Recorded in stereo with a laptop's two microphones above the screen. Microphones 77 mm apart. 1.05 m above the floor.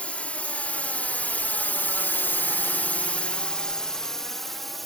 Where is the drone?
15° left (ahead or behind); by 4.9 s centre (ahead or behind).